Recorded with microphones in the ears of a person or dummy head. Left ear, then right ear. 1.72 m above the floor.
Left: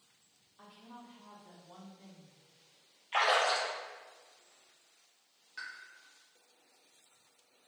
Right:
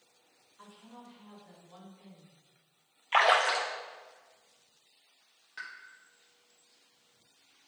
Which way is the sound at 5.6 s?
15° right (ahead or behind).